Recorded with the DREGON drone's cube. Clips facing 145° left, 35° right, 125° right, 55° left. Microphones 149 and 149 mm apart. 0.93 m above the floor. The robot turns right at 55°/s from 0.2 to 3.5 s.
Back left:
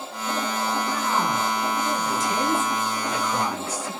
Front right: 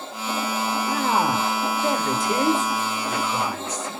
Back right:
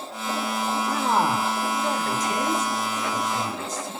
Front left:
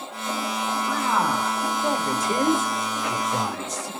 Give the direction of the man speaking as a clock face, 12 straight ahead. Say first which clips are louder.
Front right 3 dB, back right 1 dB; 3 o'clock.